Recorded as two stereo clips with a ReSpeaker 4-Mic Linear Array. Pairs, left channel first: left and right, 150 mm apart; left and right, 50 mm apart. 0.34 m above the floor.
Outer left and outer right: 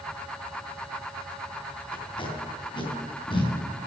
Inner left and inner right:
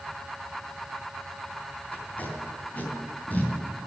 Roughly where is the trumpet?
No trumpet in this recording.